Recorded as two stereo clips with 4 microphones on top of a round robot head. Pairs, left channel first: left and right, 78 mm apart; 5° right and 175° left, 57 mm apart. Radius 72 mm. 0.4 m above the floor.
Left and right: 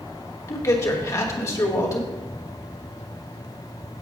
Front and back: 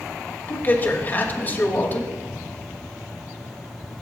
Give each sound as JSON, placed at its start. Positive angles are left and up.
{"t": 0.5, "sound": "a man speaking", "azimuth_deg": 45, "distance_m": 2.0}